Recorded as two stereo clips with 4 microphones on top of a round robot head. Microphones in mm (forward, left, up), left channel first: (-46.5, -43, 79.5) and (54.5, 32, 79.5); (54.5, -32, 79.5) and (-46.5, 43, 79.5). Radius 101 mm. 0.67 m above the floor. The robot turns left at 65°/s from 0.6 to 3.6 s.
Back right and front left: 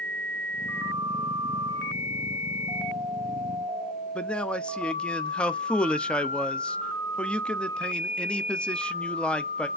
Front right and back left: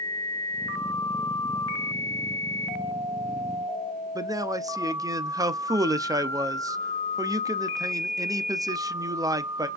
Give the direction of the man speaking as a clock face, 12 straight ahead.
7 o'clock.